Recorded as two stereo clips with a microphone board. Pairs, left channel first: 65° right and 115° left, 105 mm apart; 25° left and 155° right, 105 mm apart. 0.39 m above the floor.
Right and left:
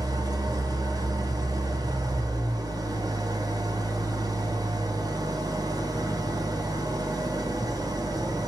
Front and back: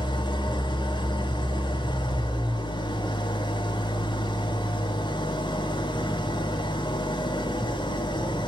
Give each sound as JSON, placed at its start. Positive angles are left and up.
{"t": 0.0, "sound": "an engine running", "azimuth_deg": 65, "distance_m": 2.5}